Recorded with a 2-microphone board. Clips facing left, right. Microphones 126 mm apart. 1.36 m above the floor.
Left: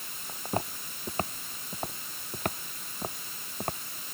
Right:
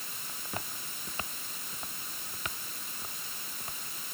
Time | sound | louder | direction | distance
0.3 | footsteps | left 9 dB | 35° left (ahead or behind) | ?